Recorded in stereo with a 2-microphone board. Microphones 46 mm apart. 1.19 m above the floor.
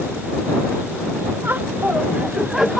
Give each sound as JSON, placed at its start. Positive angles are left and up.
{"t": 1.4, "sound": "laughter", "side_deg": -55}